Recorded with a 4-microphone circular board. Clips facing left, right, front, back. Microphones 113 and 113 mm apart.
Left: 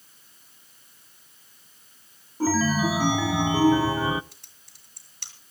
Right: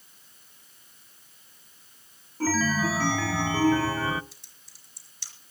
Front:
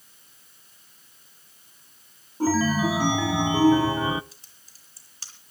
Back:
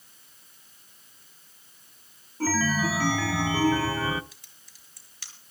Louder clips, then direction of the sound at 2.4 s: Left 3 dB, front 4 dB; 35° left.